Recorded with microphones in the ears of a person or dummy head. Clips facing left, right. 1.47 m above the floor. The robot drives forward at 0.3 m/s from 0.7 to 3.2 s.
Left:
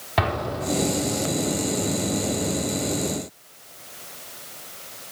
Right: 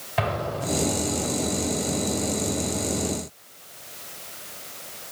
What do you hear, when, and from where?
0.2 s an explosion: 75° left (ahead or behind), 2.5 m